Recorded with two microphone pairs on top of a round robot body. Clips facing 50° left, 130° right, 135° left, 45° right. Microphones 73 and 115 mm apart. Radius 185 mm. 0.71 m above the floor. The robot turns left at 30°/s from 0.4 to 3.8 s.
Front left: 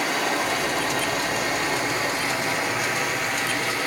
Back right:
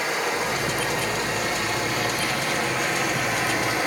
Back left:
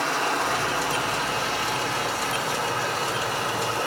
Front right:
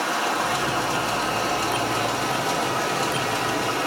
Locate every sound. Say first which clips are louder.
0.0 s running water: front left 1 dB, front right 1 dB; 35° left, 2 m; by 3.9 s 70° right, 2 m